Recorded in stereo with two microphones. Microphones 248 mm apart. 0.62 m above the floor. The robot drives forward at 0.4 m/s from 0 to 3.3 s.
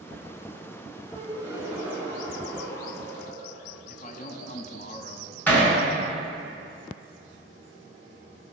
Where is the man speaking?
35° left (ahead or behind), 0.7 m.